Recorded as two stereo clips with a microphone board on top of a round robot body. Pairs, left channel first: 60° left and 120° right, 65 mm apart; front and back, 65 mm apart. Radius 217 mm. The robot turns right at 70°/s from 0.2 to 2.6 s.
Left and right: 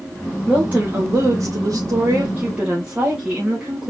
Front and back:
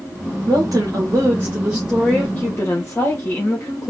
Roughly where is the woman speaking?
Behind.